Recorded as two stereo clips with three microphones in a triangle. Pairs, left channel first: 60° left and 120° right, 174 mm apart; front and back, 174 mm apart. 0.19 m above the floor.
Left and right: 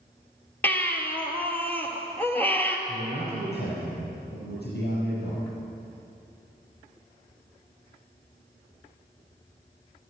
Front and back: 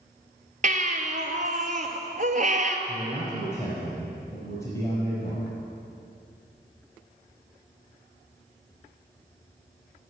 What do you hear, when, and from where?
0.6 s a baby crying: 140° left, 1.5 m
2.9 s a man speaking: 70° left, 5.5 m